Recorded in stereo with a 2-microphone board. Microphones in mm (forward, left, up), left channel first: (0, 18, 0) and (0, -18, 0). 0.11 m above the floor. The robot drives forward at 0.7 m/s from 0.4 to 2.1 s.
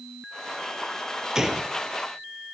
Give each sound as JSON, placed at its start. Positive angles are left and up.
{"t": 1.4, "sound": "a gunshot", "side_deg": -20, "distance_m": 1.7}